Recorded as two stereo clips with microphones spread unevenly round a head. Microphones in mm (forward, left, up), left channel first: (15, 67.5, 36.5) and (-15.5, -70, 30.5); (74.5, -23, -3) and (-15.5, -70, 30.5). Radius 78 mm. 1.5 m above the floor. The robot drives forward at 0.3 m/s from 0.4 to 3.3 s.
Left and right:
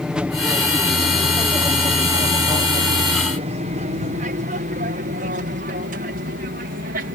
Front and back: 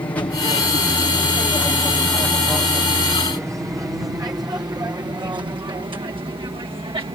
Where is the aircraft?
20° right; by 7.2 s 110° right.